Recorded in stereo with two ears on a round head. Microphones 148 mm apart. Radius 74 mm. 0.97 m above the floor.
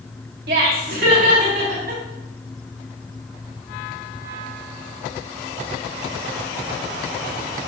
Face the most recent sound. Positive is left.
turn(degrees=-60)  # may be behind; listen again after turning